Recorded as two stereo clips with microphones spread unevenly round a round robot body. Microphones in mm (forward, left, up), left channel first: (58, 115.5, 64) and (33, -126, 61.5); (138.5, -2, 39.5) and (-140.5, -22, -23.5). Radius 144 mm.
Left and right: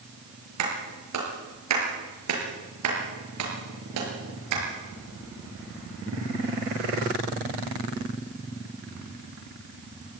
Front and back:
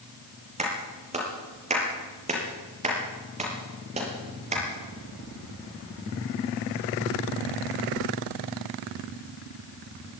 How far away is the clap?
About 5.5 m.